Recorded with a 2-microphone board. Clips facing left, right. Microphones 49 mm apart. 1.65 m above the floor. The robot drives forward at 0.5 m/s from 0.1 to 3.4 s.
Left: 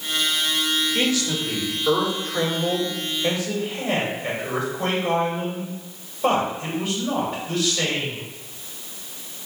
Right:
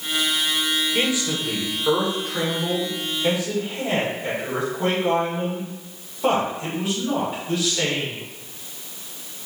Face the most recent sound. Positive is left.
turn(degrees=-10)  # may be behind; listen again after turning